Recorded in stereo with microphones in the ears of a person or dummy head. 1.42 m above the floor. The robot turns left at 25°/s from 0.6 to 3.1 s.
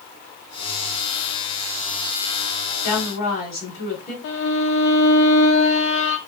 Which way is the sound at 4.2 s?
75° left (ahead or behind).